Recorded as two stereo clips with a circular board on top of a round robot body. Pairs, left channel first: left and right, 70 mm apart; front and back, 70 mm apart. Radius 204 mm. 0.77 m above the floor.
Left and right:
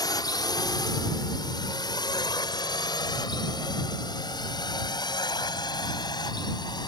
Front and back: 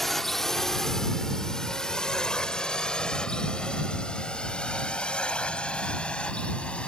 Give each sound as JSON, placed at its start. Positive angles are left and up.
{"t": 0.0, "sound": "a drone", "azimuth_deg": 85}